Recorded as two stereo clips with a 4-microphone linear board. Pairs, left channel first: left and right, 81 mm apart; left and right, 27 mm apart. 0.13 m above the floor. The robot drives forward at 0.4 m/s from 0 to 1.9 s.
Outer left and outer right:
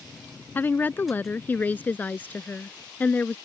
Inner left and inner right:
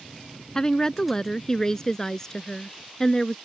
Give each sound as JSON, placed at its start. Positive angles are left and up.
{"t": 0.6, "sound": "a woman speaking", "side_deg": 25}